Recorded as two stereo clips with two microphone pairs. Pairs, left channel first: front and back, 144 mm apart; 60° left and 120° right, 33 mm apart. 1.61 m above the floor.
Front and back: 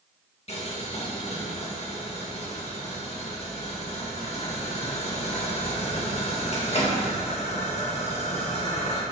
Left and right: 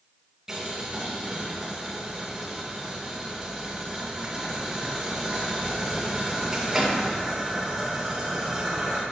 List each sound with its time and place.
0.5 s boiling: 45° right, 1.9 m